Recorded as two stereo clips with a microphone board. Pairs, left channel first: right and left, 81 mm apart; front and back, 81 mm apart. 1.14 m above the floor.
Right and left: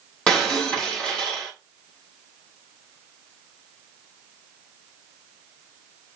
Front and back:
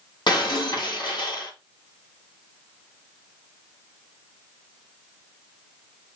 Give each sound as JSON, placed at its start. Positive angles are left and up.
{"t": 0.3, "sound": "breaking glass", "azimuth_deg": -10, "distance_m": 3.0}